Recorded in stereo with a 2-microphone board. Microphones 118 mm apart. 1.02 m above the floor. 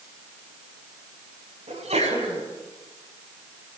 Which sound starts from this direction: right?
A sneeze, at 1.7 s.